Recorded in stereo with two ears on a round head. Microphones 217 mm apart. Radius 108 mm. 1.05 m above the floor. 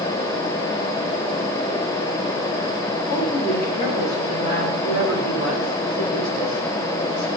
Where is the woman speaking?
75° left (ahead or behind), 4.5 m; by 7.3 s 70° left (ahead or behind), 4.5 m.